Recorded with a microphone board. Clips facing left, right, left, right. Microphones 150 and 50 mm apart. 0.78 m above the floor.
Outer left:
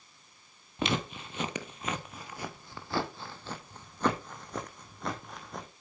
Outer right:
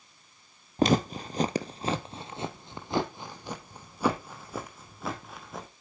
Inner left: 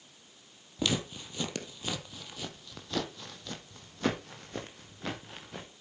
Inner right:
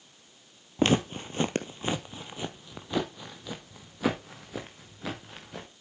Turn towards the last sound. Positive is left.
turn(degrees=0)  # may be behind; listen again after turning